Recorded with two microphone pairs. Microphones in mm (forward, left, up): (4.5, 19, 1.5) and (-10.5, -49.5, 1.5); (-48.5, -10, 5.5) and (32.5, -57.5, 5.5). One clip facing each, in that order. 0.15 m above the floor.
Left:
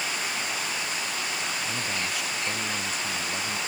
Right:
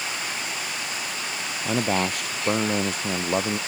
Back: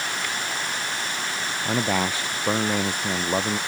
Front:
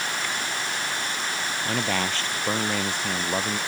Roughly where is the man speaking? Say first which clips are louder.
Right 7 dB, back 4 dB; behind right.